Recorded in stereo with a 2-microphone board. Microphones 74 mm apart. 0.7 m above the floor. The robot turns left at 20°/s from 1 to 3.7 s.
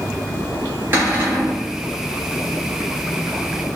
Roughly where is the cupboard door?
Right.